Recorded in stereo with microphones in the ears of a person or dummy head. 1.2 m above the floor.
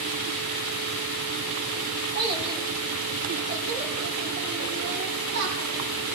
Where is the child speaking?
25° right (ahead or behind), 3.5 m; by 6.2 s 75° right (ahead or behind), 5.5 m.